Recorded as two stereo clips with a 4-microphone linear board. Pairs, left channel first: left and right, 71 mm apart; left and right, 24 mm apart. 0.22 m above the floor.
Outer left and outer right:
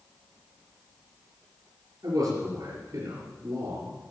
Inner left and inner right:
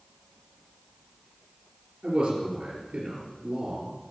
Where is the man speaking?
60° right (ahead or behind), 4 m.